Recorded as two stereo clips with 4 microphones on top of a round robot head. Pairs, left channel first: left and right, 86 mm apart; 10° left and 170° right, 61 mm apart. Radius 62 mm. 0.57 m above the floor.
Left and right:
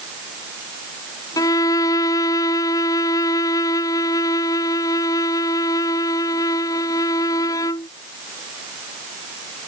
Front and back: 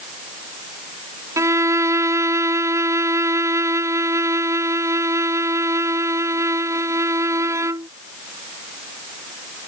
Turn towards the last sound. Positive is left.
turn(degrees=150)